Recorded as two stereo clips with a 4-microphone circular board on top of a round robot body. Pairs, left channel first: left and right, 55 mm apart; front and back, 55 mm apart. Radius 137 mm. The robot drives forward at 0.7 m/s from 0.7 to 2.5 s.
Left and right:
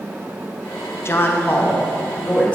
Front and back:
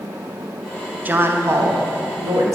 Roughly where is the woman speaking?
Behind left.